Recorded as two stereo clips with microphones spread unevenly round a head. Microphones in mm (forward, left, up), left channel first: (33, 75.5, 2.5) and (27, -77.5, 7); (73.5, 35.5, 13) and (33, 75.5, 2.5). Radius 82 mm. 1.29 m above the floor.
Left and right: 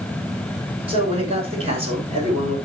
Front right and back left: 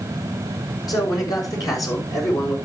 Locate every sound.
0.9 s a man speaking: 40° right, 6 m; by 2.6 s 45° right, 5 m